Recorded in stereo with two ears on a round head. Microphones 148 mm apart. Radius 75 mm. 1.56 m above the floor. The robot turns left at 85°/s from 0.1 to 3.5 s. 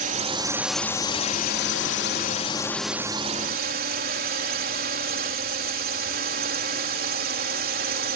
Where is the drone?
125° right; by 8.2 s 55° right.